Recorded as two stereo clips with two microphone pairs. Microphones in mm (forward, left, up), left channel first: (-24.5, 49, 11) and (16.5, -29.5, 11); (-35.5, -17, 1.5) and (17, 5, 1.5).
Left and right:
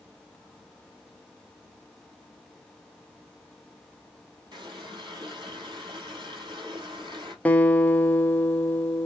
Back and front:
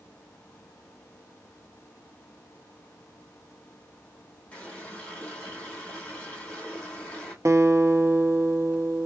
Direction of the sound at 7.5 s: 45° left.